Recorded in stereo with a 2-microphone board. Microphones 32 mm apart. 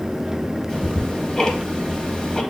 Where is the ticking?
20° left (ahead or behind), 0.6 m.